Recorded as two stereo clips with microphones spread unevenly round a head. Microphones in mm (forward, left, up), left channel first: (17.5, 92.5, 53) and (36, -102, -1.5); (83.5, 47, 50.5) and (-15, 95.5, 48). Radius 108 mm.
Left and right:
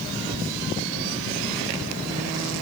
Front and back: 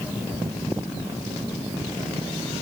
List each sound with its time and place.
Only background noise.